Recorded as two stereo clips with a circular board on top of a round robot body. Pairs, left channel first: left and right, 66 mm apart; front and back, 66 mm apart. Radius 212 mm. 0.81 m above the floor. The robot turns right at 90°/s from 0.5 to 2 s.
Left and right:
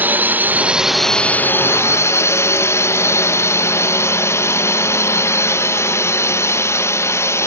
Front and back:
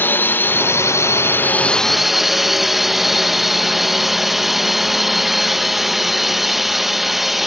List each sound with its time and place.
0.0 s a drone: 40° right; by 7.5 s 95° left